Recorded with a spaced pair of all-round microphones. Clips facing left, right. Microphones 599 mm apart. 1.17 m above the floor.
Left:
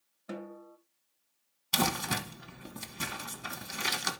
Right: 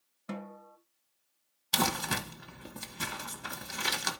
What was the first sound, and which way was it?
A snare drum, 30° right (ahead or behind).